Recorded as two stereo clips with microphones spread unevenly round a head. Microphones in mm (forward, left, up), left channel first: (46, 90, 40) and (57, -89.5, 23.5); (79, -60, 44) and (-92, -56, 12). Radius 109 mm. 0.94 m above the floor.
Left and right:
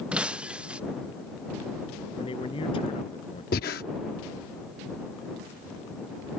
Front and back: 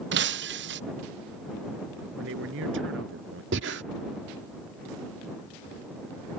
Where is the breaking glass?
170° right.